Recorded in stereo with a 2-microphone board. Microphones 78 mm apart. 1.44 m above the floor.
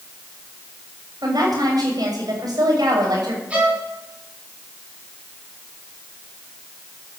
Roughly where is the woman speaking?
Right.